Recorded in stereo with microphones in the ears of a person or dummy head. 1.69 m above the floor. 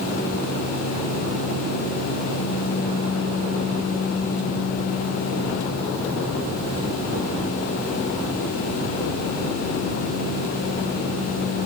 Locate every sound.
Only background noise.